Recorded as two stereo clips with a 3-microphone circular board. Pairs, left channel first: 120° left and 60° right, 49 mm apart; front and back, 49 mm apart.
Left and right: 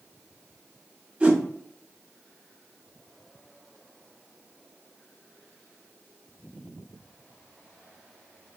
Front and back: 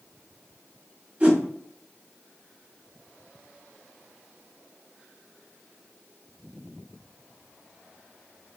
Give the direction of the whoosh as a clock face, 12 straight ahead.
4 o'clock.